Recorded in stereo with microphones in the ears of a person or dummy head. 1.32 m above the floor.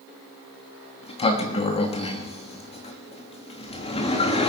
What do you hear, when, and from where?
1.0 s a sliding door: 30° left (ahead or behind), 1.1 m